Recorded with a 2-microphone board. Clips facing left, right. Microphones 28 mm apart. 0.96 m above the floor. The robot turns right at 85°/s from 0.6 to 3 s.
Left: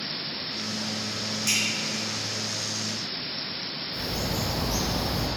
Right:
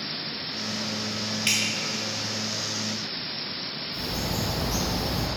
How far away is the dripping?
About 1.8 m.